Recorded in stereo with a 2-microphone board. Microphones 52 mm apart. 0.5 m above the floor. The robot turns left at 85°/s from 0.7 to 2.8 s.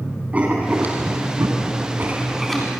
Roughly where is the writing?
Right.